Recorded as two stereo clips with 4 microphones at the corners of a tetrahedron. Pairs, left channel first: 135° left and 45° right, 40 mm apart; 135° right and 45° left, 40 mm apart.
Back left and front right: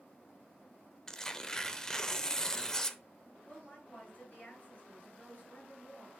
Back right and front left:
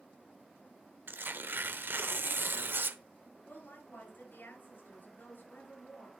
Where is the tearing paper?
60° left, 0.8 m.